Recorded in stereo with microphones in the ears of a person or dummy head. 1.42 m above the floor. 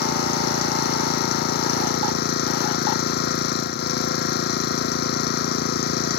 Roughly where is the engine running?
Left.